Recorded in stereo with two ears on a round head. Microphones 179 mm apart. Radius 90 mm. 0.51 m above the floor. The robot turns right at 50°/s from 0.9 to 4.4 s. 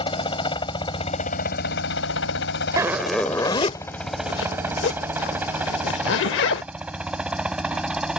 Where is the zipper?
15° right (ahead or behind); by 6.6 s 60° left (ahead or behind).